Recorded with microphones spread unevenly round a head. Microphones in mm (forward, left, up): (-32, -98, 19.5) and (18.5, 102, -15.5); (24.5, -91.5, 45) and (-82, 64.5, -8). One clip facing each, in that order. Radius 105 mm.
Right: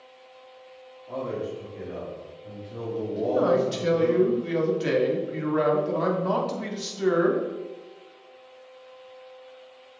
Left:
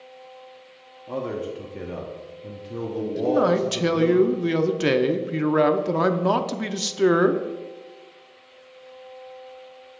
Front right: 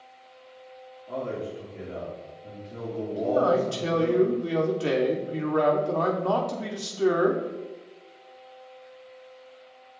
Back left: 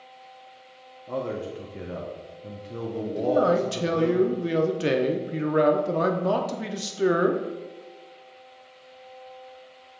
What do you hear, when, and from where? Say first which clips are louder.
1.1 s a man speaking: left 2 dB, back left 2 dB; 90° left, 1.0 m
3.2 s a man speaking: left 2 dB, back left 1 dB; 55° left, 0.5 m